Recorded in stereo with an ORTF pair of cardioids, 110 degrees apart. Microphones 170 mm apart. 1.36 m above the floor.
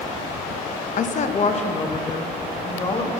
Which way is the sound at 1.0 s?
50° left.